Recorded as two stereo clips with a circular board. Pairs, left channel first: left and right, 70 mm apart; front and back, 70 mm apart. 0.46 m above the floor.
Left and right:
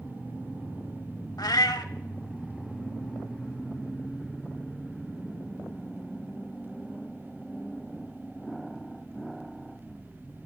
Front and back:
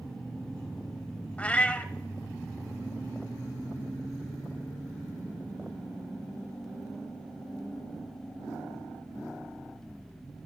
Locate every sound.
1.4 s a cat meowing: 70° left, 0.6 m